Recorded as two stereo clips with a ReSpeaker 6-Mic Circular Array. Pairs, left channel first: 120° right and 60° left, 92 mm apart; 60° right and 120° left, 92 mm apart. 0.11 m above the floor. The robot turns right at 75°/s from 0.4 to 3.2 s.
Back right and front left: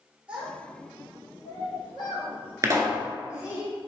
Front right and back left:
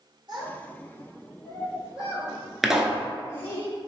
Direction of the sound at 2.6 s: 30° left.